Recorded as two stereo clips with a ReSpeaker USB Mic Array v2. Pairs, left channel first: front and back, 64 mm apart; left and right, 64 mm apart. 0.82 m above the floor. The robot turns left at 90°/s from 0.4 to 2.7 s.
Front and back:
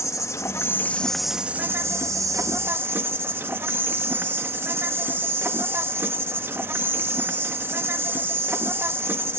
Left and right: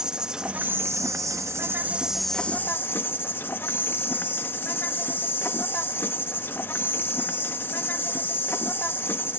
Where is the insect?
15° right; by 9.4 s 135° left.